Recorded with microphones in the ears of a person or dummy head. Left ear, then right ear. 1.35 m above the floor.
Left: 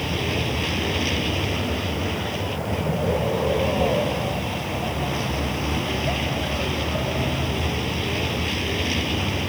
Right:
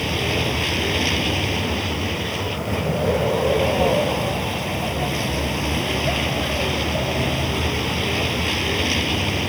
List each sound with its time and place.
0.0 s a vehicle: 5° right (ahead or behind)